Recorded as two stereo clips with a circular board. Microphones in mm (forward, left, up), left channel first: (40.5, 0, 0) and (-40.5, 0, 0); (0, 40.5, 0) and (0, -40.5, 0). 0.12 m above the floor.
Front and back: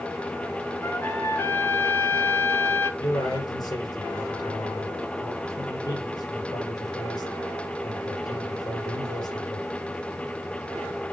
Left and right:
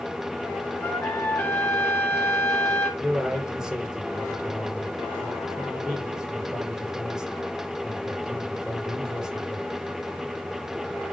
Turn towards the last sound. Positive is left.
turn(degrees=-10)